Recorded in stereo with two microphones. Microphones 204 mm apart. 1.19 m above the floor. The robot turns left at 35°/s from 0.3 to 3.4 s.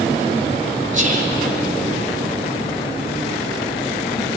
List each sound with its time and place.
0.9 s whispering: 35° right (ahead or behind), 3.5 m; by 1.3 s 50° right (ahead or behind), 3.5 m